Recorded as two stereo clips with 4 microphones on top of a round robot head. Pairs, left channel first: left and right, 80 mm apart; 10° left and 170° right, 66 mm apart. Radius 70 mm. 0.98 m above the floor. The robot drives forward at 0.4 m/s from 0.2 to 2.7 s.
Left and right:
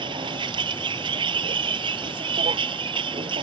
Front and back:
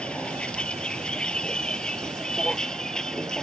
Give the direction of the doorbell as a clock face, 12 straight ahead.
No doorbell in this recording.